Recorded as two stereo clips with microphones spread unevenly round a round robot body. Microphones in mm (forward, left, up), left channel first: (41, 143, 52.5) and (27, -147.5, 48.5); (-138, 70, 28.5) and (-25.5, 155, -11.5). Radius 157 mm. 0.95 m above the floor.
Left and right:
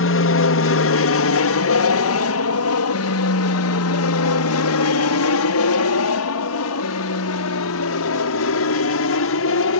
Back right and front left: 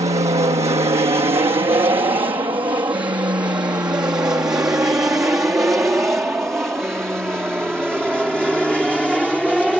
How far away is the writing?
No writing in this recording.